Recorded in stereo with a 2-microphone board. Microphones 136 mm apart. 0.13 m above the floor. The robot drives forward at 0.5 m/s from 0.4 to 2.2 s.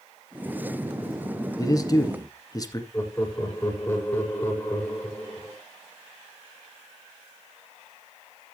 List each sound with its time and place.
1.6 s a man speaking: 30° left (ahead or behind), 1.6 m
2.9 s laughter: 15° left (ahead or behind), 4 m